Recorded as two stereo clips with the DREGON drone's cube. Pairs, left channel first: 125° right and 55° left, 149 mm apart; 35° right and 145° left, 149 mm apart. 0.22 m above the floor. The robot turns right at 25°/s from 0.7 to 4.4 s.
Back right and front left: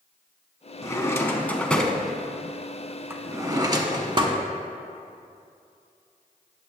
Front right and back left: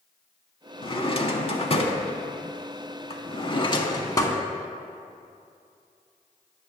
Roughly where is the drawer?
Ahead right.